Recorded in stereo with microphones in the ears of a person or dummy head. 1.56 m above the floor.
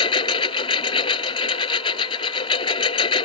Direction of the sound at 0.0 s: 30° left (ahead or behind).